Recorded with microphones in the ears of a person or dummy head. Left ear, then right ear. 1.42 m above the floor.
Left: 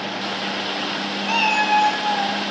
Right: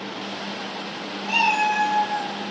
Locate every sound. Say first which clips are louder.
1.2 s a cat meowing: left 1 dB; 30° left (ahead or behind), 2 m; by 2.4 s 15° left (ahead or behind), 3.5 m